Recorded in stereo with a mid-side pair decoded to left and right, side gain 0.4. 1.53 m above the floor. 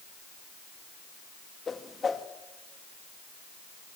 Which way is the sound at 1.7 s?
40° left.